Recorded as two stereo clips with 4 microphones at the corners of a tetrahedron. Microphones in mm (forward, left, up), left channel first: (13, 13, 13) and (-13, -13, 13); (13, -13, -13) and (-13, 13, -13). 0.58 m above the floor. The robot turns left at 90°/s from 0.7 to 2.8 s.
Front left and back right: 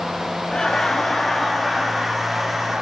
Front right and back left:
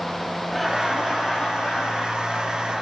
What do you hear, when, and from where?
0.5 s laughter: 45° left, 0.6 m; by 2.8 s 145° right, 0.6 m